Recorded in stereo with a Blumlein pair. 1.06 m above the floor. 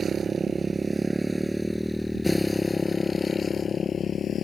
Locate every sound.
0.0 s a motorcycle: 20° right; by 4.4 s 25° left